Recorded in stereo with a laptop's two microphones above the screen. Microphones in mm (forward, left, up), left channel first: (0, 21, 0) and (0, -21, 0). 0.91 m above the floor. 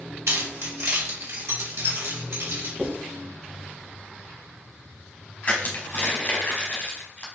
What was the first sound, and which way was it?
Keys jangling, 80° right.